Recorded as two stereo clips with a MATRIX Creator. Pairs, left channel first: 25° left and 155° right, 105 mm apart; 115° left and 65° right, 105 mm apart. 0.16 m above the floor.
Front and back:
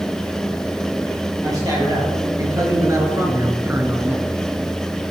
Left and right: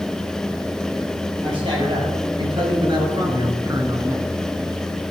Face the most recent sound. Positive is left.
turn(degrees=-90)